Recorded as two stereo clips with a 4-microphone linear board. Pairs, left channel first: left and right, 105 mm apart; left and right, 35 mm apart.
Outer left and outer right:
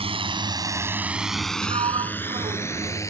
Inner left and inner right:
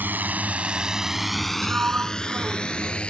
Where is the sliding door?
75° right (ahead or behind).